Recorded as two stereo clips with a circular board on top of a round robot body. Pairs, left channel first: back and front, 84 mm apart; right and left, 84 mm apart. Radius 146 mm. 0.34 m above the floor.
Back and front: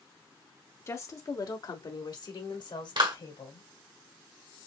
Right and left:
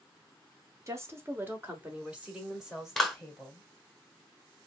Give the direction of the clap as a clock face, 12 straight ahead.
12 o'clock.